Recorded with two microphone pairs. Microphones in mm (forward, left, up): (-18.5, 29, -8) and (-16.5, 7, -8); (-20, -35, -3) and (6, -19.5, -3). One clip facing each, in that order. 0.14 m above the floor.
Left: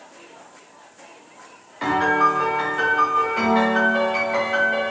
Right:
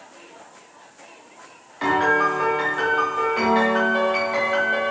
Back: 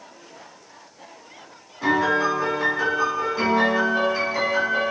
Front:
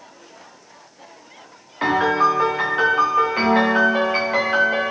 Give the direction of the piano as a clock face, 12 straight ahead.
12 o'clock.